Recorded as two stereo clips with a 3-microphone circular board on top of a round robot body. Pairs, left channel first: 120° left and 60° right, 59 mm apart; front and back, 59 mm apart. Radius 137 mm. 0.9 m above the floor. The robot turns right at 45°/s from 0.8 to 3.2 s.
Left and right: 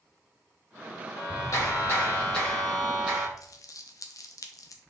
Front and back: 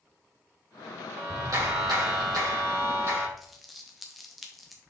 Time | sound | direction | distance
1.1 | a clap | 140° left | 3 m
3.4 | crumpling | 90° left | 0.8 m